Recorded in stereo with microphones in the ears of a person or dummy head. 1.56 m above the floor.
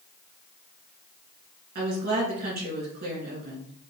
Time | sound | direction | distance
1.8 | a woman speaking | 50° right (ahead or behind) | 3 m